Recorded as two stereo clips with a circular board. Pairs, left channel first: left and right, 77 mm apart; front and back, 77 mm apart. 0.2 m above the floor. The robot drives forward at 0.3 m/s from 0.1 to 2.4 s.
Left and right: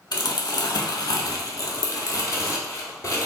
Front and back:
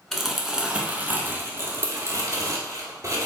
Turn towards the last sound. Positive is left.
turn(degrees=140)